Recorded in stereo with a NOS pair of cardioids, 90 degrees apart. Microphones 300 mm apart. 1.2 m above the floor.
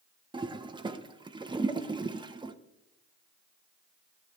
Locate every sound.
0.3 s a toilet flushing: 15° right, 0.8 m